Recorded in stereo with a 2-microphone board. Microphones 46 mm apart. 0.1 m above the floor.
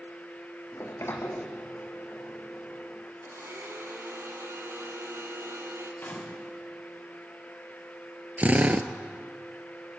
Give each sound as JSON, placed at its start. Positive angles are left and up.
{"t": 0.7, "sound": "a sliding door", "side_deg": 60, "distance_m": 2.0}
{"t": 3.2, "sound": "a blender", "side_deg": -65, "distance_m": 2.5}
{"t": 6.0, "sound": "a gunshot", "side_deg": 40, "distance_m": 4.0}
{"t": 8.4, "sound": "a drill", "side_deg": -35, "distance_m": 1.0}